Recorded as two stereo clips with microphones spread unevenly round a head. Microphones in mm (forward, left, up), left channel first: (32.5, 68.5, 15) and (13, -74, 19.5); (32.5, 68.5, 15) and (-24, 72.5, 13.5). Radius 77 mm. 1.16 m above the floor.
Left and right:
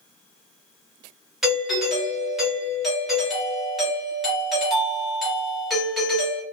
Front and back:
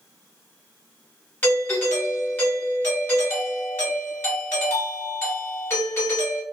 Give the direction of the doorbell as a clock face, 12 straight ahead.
12 o'clock.